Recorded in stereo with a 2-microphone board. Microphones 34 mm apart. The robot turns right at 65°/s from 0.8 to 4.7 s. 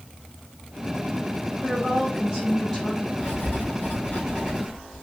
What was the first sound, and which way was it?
A woman speaking, 70° right.